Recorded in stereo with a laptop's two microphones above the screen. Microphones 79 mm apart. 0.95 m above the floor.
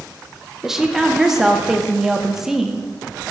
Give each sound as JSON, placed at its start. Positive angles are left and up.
{"t": 0.6, "sound": "a woman speaking", "side_deg": -5, "distance_m": 0.6}